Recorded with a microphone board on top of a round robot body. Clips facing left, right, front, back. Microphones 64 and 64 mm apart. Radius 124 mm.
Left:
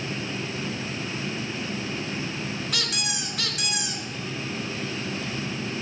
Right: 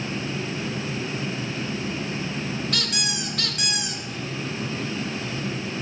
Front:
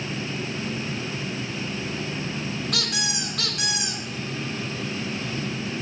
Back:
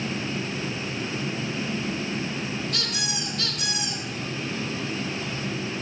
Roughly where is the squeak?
Ahead.